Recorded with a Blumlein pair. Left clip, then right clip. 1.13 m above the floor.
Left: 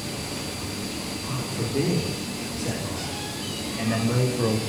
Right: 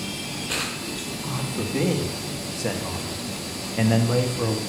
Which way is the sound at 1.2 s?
55° right.